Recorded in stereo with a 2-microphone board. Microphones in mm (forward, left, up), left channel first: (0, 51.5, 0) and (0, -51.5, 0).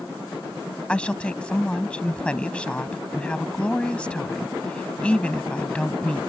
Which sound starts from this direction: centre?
A woman speaking, at 0.9 s.